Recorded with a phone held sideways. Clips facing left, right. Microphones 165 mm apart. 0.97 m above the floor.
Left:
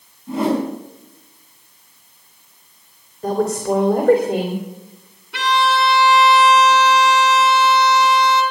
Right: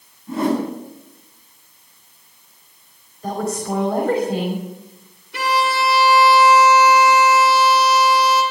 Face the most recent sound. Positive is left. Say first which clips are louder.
# left 2 dB
turn(degrees=75)  # may be behind; listen again after turning